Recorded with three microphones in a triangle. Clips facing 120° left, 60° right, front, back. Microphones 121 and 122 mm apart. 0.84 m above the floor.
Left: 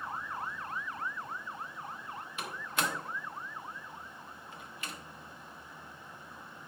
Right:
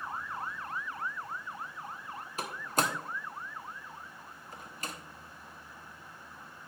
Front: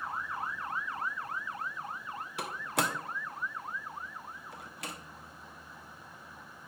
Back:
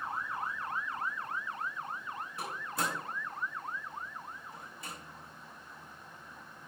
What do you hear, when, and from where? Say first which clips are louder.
2.4 s a door slam: right 4 dB, front 4 dB; 10° right, 0.9 m